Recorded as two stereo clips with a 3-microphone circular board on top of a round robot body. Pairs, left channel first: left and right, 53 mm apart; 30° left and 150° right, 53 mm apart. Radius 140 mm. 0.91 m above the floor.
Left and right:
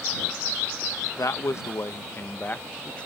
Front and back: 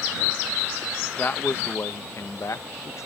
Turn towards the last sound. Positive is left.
turn(degrees=20)